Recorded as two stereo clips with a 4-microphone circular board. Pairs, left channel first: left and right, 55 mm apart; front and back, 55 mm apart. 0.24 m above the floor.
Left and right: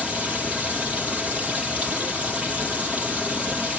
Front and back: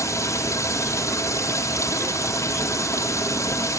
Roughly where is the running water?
Ahead right.